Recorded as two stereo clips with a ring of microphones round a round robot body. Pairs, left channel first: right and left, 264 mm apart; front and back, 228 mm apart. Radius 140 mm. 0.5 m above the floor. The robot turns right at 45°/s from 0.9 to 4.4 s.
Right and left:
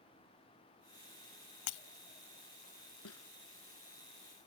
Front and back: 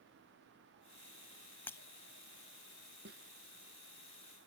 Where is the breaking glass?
85° right; by 1.8 s 80° right.